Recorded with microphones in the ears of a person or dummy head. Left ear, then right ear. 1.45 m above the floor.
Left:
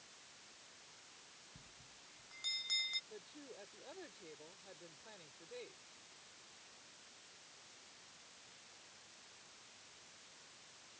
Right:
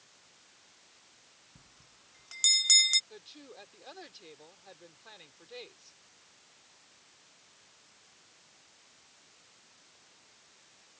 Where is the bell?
60° right (ahead or behind).